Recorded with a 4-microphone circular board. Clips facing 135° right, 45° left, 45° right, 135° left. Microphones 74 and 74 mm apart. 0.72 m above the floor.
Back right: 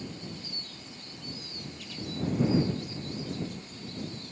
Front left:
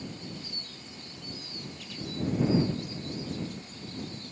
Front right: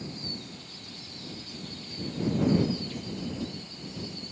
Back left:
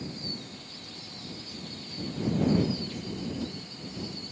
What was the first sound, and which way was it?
Only background noise.